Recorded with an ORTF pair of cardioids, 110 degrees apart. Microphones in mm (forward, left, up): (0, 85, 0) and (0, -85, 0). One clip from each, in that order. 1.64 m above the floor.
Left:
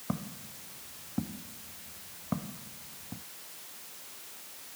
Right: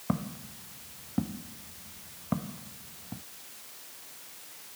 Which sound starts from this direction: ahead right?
Footsteps, at 0.1 s.